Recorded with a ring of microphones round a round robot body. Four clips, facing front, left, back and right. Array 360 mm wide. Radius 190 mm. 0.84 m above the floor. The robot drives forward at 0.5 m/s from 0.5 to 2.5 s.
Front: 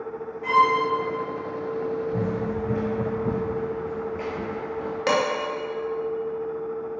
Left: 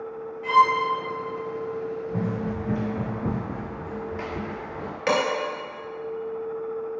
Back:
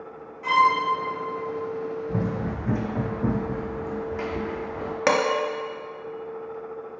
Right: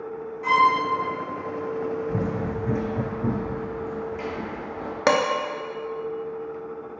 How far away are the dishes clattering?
About 1.0 m.